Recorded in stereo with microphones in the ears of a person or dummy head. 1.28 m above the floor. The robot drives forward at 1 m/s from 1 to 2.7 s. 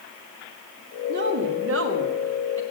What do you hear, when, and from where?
1.1 s a woman speaking: 60° right (ahead or behind), 2 m; by 2.6 s 75° right (ahead or behind), 1.8 m